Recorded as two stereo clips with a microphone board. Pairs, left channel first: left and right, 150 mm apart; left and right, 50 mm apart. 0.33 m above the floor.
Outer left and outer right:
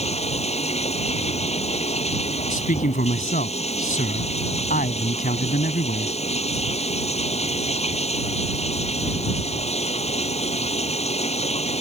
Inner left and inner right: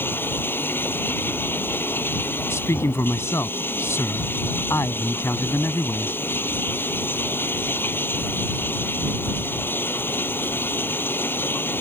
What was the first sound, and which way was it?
Running water, 45° left (ahead or behind).